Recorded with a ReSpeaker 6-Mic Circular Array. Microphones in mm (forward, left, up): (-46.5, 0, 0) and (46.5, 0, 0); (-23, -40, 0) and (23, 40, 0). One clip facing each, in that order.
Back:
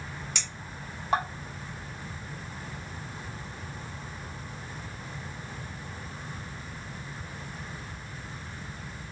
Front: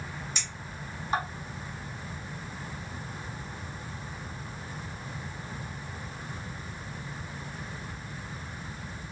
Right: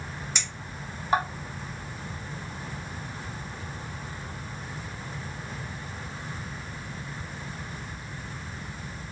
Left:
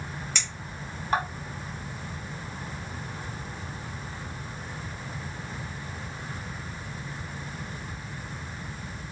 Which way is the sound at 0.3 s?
160° left.